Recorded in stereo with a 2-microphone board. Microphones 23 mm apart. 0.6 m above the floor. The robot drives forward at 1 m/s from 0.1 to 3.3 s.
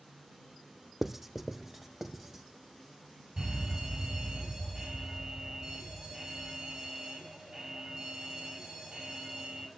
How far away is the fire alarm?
About 7 m.